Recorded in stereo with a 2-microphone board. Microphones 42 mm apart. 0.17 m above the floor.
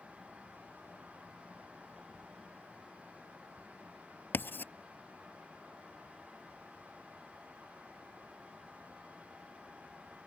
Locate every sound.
4.3 s writing: 60° left (ahead or behind)